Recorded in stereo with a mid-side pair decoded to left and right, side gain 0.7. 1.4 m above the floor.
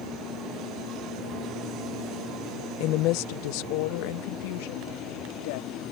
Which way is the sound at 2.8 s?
60° left.